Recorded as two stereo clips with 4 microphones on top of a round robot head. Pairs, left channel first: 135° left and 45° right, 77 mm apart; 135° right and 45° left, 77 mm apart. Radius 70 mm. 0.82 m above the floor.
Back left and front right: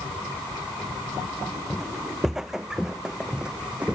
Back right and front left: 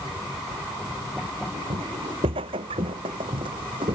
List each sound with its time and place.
1.7 s footsteps: 40° left; by 3.9 s 30° left